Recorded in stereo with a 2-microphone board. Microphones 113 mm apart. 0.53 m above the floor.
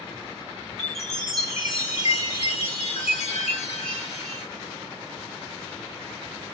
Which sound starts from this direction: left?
A chime, at 0.8 s.